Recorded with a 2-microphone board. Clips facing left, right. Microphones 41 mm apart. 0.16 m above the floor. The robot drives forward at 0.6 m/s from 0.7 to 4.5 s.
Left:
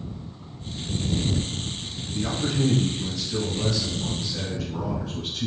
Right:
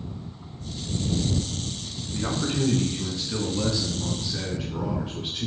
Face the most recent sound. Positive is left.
turn(degrees=-30)  # may be behind; listen again after turning